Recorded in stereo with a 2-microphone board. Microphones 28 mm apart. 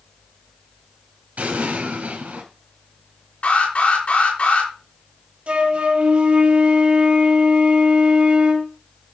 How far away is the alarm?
About 4 m.